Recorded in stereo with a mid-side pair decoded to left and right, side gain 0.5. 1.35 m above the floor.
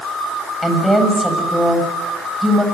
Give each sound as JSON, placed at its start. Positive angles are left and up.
{"t": 0.6, "sound": "a woman speaking", "azimuth_deg": 0, "distance_m": 7.0}